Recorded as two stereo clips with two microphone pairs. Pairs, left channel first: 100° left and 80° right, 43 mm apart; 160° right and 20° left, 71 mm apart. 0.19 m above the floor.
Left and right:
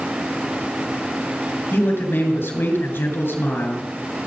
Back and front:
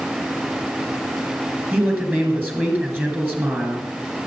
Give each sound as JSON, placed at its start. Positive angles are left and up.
{"t": 1.7, "sound": "a man speaking", "azimuth_deg": 80, "distance_m": 3.5}